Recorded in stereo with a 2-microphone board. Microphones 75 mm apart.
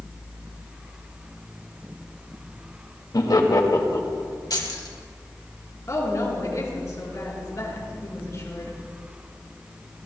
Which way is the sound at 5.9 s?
40° left (ahead or behind).